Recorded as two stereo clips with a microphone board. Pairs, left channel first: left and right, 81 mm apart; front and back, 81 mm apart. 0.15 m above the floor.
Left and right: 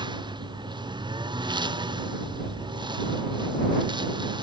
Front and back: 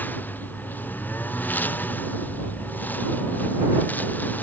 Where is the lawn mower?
65° right; by 4.4 s 70° right.